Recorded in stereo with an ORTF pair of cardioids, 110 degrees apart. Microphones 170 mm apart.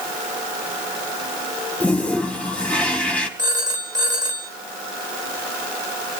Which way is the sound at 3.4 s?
25° right.